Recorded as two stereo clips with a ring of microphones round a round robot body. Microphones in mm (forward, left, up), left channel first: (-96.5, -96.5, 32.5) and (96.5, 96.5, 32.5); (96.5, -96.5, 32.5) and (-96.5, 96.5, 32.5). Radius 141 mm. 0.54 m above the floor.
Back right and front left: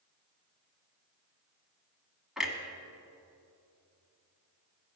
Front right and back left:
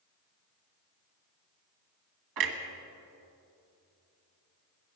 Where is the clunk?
135° left, 1.6 m.